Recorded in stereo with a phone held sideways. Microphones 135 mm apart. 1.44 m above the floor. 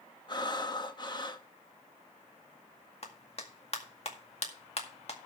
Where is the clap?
50° left (ahead or behind), 1.9 m.